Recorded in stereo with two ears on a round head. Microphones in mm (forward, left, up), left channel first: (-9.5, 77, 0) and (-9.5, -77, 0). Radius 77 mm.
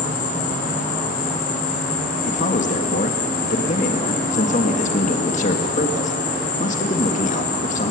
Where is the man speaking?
45° left (ahead or behind), 1.6 m.